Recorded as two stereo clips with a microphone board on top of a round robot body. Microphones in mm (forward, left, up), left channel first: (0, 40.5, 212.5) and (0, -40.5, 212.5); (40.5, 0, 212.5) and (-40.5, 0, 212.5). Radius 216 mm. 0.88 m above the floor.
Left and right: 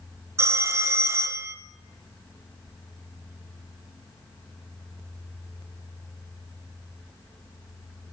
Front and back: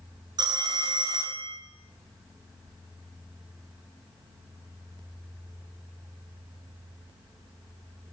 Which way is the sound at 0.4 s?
145° right.